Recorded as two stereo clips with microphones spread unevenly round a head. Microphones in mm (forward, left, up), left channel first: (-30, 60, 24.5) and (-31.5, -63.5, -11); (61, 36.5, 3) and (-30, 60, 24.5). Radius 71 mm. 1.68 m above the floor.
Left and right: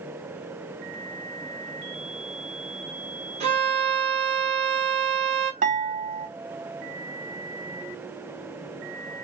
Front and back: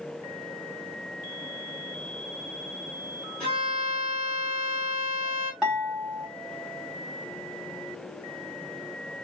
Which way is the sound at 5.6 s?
110° right.